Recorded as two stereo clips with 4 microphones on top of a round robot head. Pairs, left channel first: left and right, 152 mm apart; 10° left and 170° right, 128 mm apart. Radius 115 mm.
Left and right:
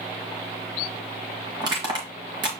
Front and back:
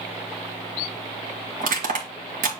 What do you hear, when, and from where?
1.6 s crushing: 155° right, 1.8 m